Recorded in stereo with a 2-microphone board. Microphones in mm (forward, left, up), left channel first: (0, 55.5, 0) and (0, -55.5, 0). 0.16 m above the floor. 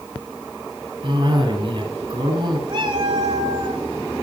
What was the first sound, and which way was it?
A cough, 40° right (ahead or behind).